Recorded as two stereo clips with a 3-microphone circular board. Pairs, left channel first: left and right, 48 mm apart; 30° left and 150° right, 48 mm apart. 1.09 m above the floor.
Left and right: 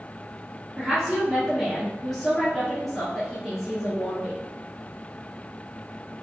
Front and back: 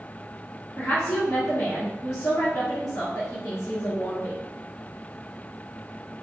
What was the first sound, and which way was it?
A woman speaking, straight ahead.